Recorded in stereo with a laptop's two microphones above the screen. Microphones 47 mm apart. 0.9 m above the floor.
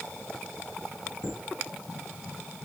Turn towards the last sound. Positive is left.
turn(degrees=-25)  # may be behind; listen again after turning